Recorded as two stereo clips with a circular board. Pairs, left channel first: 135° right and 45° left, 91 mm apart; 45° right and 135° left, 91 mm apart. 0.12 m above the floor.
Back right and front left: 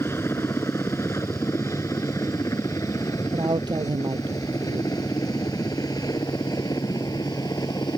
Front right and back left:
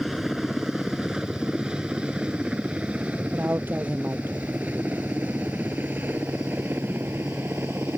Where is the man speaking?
70° left.